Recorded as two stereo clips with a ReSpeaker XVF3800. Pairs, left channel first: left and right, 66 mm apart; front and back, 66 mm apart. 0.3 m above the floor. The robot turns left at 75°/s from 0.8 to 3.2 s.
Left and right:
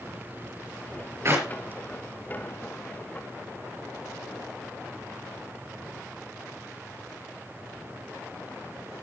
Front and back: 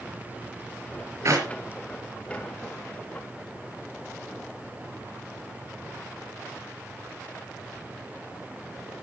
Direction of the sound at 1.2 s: 135° right.